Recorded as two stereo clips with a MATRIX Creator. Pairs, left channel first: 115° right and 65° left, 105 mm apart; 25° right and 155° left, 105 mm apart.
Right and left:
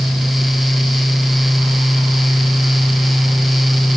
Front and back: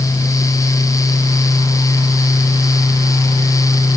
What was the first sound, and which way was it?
Only background noise.